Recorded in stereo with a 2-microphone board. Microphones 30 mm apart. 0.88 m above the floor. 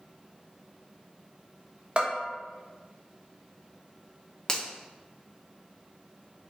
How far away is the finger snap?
About 0.8 m.